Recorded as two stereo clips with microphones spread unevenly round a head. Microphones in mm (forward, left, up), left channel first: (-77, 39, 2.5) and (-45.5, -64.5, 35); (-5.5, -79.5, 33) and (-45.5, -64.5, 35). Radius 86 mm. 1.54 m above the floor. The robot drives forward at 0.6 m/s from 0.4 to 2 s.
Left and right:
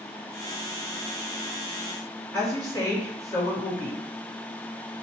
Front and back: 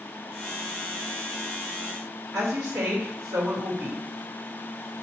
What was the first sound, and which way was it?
A woman speaking, 160° left.